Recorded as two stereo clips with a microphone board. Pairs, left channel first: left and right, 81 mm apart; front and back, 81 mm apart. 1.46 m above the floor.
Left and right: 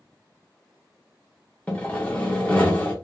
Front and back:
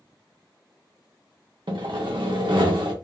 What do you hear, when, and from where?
1.7 s sawing: 165° left, 0.8 m